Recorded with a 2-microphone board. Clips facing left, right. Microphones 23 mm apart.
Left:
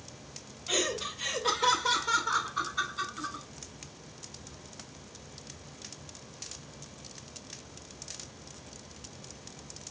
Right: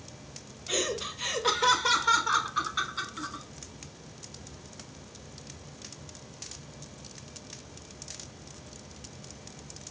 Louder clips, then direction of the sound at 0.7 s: Even; centre (ahead or behind).